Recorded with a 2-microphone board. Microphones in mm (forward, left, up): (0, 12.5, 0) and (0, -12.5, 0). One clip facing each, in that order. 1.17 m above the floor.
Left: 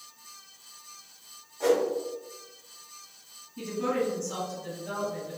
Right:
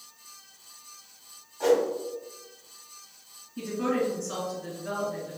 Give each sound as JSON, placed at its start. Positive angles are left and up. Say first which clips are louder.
{"t": 1.6, "sound": "a whoosh", "louder": "right 2 dB", "side_deg": -15, "distance_m": 0.9}
{"t": 3.6, "sound": "a woman speaking", "louder": "right 1 dB", "side_deg": -55, "distance_m": 1.7}